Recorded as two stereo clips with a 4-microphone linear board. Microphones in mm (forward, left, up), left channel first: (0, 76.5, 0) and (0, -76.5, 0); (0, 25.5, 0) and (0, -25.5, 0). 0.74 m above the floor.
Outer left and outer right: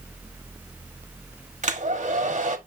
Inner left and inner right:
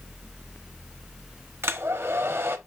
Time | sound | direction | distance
1.6 | a hair dryer | 50° right (ahead or behind) | 1.4 m